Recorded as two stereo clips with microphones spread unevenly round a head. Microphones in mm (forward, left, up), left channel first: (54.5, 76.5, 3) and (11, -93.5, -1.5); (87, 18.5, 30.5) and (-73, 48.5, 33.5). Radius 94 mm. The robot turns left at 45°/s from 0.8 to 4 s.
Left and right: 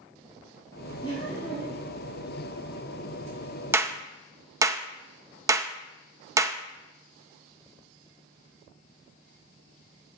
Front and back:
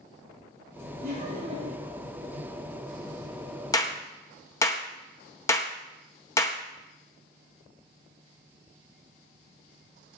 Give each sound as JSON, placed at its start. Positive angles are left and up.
{"t": 1.0, "sound": "laughter", "azimuth_deg": 145, "distance_m": 4.5}
{"t": 3.7, "sound": "a clap", "azimuth_deg": -50, "distance_m": 0.6}